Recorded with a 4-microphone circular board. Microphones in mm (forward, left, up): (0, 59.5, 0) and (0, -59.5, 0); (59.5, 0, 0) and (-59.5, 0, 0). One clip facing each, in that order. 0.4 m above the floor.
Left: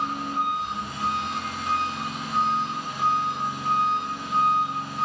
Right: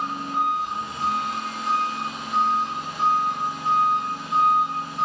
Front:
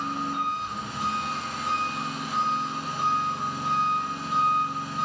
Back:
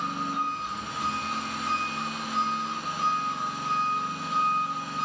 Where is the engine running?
30° right, 1.5 m.